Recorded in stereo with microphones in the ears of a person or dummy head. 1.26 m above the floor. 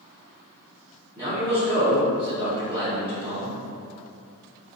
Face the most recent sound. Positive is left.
turn(degrees=-15)  # may be behind; listen again after turning